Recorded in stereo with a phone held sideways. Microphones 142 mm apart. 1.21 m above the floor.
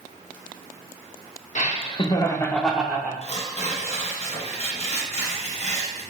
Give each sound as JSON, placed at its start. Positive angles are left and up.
{"t": 1.6, "sound": "laughter", "side_deg": 50, "distance_m": 0.8}
{"t": 3.2, "sound": "tearing paper", "side_deg": 50, "distance_m": 1.0}